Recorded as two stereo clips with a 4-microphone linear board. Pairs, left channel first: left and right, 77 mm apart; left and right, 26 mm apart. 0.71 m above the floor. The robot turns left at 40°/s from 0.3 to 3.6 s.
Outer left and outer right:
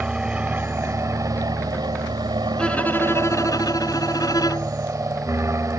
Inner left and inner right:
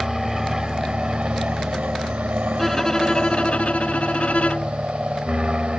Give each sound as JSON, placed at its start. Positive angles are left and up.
{"t": 0.0, "sound": "an aircraft", "side_deg": -15}
{"t": 2.6, "sound": "a violin", "azimuth_deg": 170}